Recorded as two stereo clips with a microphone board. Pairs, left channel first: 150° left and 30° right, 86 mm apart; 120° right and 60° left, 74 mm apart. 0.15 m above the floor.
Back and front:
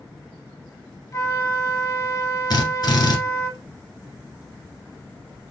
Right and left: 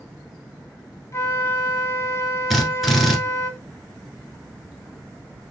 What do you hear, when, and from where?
1.1 s a flute: 165° right, 0.6 m
2.5 s a drill: 150° left, 1.2 m